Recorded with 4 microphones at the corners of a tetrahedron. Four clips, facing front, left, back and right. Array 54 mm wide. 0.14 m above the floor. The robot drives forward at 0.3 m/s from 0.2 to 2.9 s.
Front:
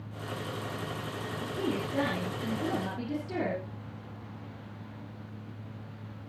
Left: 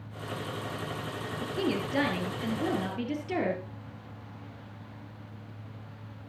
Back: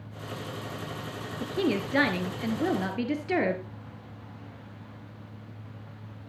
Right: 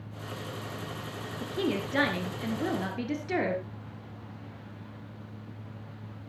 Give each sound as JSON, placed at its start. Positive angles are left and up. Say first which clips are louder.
{"t": 1.4, "sound": "a woman speaking", "louder": "even, back 6 dB", "azimuth_deg": -170, "distance_m": 2.0}